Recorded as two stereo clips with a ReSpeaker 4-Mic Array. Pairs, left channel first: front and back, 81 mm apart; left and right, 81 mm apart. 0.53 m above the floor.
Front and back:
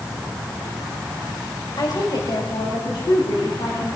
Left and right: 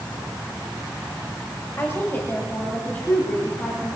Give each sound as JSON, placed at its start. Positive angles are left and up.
{"t": 1.8, "sound": "a woman speaking", "azimuth_deg": 35, "distance_m": 2.0}